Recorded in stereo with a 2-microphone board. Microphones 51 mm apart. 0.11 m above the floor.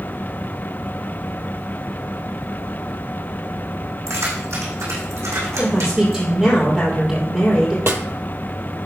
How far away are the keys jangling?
About 5 m.